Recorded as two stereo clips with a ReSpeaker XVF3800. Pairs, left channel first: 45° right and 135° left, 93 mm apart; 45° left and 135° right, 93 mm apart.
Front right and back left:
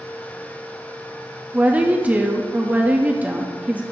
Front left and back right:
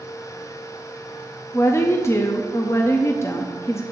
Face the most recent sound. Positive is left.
turn(degrees=75)